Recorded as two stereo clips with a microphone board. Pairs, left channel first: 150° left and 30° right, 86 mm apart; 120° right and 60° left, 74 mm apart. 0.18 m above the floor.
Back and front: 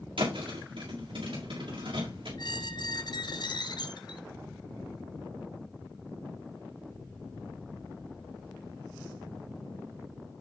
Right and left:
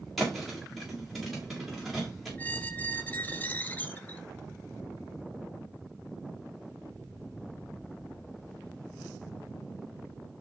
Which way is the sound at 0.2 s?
30° right.